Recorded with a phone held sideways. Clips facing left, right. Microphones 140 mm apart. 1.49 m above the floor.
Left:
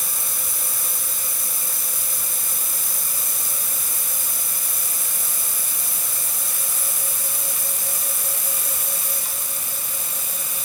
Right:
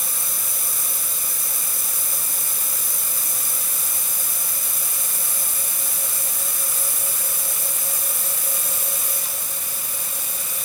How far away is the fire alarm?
I don't hear a fire alarm.